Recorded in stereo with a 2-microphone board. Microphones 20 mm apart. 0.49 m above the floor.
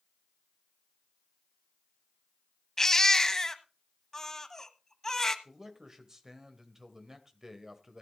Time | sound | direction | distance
2.8 | a baby crying | 30° left (ahead or behind) | 1.1 m
5.5 | a man speaking | 25° right (ahead or behind) | 2 m